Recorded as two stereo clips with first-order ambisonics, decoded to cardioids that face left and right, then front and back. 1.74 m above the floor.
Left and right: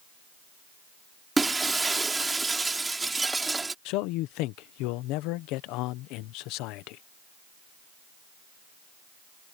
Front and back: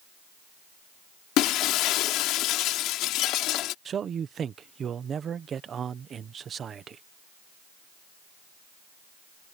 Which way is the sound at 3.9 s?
115° left.